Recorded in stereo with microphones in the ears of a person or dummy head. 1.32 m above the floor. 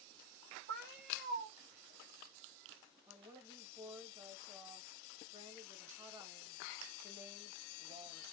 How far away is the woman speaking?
About 1.5 m.